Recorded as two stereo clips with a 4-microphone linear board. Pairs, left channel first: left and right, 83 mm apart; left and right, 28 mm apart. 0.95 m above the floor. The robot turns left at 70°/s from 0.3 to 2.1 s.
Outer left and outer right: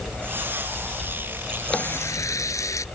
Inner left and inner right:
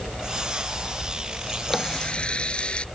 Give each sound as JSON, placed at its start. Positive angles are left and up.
{"t": 1.7, "sound": "a running tap", "side_deg": 10}